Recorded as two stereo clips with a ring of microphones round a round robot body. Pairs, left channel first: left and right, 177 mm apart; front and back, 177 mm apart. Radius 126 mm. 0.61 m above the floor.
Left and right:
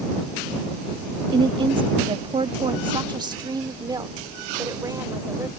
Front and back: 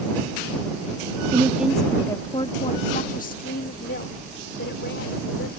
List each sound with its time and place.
1.3 s a woman speaking: 130° right; by 5.5 s 20° right